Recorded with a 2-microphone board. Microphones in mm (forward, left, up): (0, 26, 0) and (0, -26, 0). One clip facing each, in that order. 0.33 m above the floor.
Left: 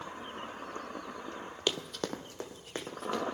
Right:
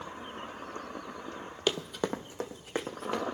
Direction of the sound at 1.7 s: 5° right (ahead or behind).